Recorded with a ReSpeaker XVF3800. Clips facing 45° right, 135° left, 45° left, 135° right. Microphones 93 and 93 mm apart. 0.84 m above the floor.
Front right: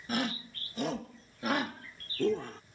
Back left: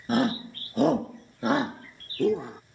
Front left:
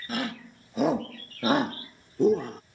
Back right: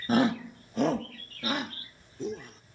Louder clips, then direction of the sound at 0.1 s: Back left 9 dB, back right 8 dB; straight behind.